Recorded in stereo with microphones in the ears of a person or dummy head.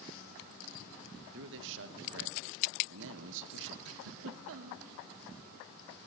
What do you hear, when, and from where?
1.3 s a man speaking: 65° right (ahead or behind), 1.9 m
3.9 s a giggle: 70° right (ahead or behind), 1.7 m